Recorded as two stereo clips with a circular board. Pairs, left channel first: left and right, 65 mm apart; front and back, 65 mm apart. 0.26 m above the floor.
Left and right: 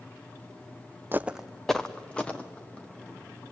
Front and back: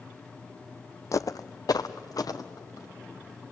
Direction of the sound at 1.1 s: 35° right.